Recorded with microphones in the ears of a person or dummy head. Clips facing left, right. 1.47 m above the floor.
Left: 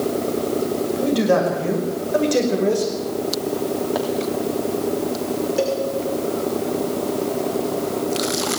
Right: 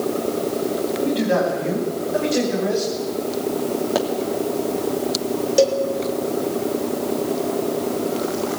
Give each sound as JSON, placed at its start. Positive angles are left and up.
{"t": 1.0, "sound": "a man speaking", "side_deg": 55, "distance_m": 6.5}
{"t": 4.0, "sound": "a pop", "side_deg": -35, "distance_m": 2.5}
{"t": 5.6, "sound": "a cowbell", "side_deg": -45, "distance_m": 2.0}